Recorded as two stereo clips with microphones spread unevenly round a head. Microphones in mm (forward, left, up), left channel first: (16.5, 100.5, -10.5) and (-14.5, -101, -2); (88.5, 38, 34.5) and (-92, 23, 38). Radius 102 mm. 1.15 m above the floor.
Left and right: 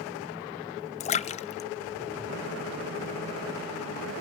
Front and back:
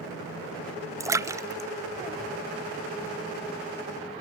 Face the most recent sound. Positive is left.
turn(degrees=120)